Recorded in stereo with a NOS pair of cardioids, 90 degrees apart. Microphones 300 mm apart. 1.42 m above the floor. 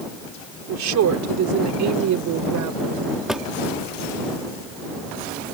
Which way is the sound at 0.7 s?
65° right.